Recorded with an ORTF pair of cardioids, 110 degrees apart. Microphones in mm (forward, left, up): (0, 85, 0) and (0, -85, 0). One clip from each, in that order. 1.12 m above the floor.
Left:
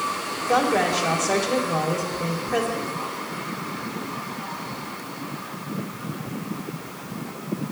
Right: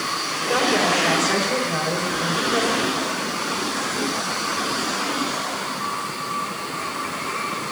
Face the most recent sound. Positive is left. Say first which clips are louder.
# right 1 dB
turn(degrees=20)